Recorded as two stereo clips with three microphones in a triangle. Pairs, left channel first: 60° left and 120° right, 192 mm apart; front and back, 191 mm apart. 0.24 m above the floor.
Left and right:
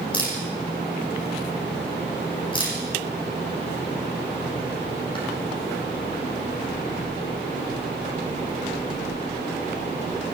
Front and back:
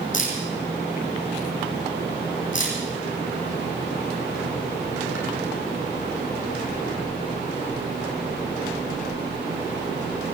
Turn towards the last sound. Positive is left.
turn(degrees=-5)